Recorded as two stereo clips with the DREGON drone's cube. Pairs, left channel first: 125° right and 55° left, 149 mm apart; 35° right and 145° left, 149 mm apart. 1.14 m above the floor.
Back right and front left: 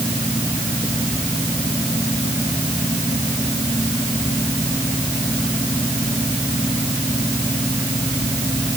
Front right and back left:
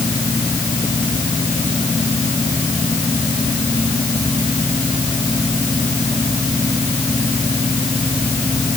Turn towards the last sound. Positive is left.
No sound to turn to.